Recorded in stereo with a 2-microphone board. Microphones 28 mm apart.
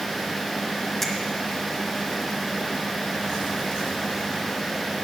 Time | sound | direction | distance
1.0 | a finger snap | 10° left (ahead or behind) | 1.3 m